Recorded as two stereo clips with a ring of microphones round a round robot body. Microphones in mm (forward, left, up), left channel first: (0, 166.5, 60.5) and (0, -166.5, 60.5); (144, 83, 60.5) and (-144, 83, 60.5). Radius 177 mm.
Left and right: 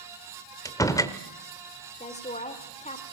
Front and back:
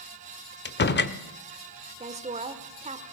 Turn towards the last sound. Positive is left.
turn(degrees=140)